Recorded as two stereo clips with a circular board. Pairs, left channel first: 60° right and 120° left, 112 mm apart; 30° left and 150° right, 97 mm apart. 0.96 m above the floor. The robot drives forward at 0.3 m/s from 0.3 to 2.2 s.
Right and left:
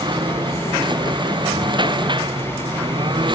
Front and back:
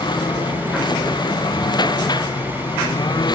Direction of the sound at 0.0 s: 70° left.